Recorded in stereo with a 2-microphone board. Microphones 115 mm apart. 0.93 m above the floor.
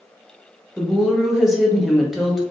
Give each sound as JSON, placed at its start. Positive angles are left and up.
{"t": 0.8, "sound": "a woman speaking", "side_deg": -5, "distance_m": 0.8}